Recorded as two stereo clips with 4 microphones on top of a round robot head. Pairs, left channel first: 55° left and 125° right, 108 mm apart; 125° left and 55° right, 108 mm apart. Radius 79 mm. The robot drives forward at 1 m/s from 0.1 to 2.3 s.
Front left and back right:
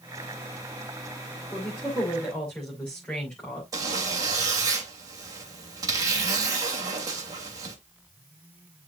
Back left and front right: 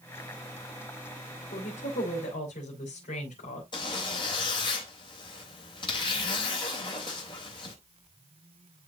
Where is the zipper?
175° left, 3 m.